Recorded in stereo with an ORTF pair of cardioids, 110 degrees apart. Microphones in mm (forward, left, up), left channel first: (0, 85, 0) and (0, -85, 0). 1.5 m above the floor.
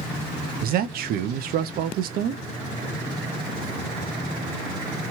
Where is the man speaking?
65° right, 0.5 m.